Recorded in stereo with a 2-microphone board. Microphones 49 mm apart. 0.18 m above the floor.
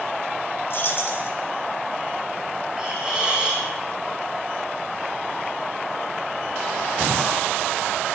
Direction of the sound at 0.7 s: 50° left (ahead or behind).